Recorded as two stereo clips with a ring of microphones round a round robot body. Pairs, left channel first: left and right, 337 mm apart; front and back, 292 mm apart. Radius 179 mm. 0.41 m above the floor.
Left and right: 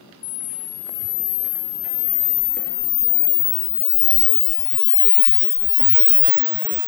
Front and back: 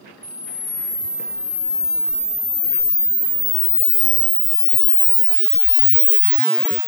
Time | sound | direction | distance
0.2 | a camera shutter | 80° left | 0.9 m